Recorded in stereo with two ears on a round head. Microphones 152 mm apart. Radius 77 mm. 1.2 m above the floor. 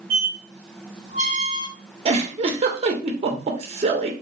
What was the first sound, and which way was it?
A squeak, 45° right (ahead or behind).